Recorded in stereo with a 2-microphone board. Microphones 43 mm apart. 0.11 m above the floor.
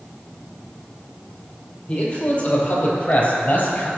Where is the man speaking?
30° left (ahead or behind), 3 m; by 3.9 s 40° left (ahead or behind), 2 m.